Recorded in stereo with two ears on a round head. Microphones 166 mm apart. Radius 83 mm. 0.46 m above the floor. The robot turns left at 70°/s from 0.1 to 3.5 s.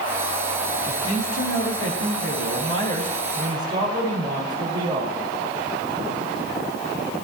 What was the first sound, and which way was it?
A man speaking, 160° left.